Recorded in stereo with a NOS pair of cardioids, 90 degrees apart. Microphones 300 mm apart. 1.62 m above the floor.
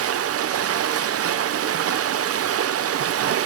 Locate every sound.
0.0 s running water: 50° right, 0.9 m